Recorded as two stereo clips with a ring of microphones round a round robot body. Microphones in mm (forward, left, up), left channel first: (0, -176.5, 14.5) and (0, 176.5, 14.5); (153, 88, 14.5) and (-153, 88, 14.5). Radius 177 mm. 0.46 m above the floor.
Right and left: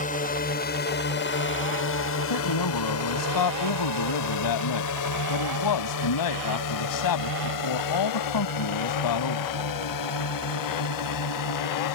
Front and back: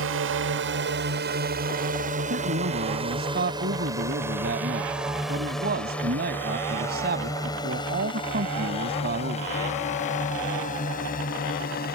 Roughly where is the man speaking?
Behind right.